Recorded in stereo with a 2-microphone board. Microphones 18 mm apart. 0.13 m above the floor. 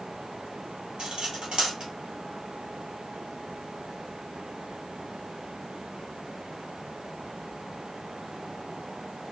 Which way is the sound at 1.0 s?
65° right (ahead or behind).